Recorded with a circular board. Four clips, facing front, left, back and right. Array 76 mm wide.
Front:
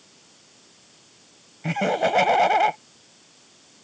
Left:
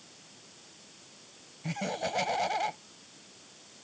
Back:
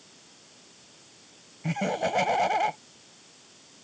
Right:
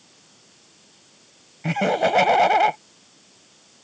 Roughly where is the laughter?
Ahead right.